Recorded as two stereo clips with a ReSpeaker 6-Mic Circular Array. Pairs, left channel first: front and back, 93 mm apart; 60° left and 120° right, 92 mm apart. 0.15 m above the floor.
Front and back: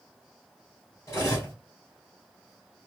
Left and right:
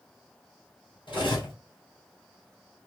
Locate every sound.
1.1 s cutlery clinking: 55° left, 1.8 m